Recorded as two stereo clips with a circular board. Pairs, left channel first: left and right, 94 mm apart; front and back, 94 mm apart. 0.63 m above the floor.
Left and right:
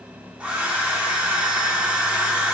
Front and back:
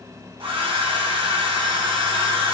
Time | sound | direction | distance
0.4 | a hair dryer | 165° right | 1.0 m